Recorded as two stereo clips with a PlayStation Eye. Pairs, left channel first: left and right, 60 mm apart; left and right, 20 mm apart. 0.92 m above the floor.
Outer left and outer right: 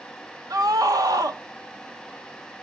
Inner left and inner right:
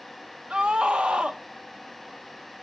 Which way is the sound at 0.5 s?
80° right.